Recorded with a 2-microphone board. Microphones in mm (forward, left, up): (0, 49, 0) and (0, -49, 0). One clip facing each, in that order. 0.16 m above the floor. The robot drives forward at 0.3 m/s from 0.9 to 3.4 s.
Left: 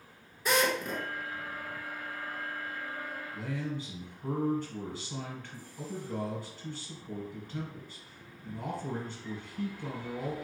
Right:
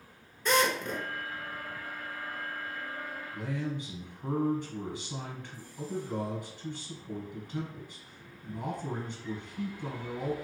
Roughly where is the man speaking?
Centre.